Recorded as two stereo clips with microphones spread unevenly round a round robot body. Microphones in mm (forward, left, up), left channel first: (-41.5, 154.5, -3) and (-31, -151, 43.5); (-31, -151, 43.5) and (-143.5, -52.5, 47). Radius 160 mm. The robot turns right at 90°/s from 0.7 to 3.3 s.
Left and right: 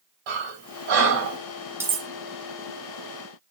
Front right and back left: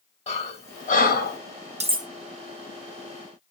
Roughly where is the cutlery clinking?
Behind.